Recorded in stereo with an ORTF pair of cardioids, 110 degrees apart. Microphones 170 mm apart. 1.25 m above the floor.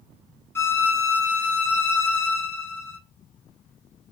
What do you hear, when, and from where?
0.6 s a violin: 15° left, 0.8 m